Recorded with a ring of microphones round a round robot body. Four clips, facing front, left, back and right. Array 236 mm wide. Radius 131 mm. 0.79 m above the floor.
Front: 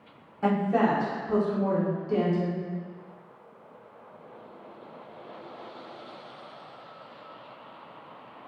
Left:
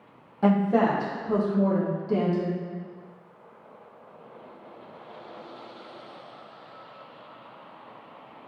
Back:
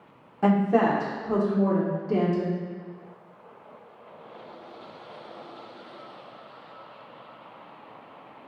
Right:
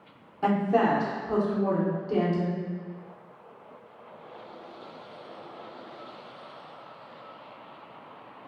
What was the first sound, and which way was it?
A woman speaking, 145° left.